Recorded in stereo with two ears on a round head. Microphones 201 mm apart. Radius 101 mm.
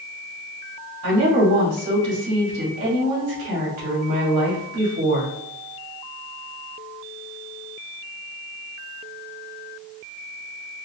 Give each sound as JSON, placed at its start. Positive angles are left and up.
{"t": 1.0, "sound": "a woman speaking", "side_deg": -80, "distance_m": 1.9}